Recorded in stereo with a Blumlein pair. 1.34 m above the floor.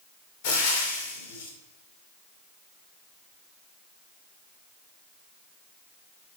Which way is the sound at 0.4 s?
50° left.